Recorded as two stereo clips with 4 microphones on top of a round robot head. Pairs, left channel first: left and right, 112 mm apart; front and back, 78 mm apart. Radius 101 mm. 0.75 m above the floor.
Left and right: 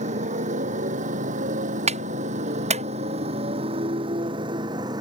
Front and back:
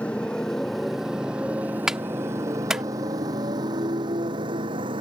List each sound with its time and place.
0.0 s a motorcycle: 80° right; by 5.0 s 150° right
1.9 s a clap: 95° right